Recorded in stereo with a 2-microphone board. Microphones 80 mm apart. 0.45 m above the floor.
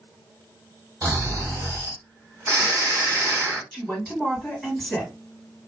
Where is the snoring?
40° right (ahead or behind), 2 m.